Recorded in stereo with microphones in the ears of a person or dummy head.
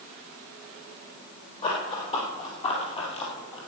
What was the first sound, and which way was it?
Running footsteps, 30° left (ahead or behind).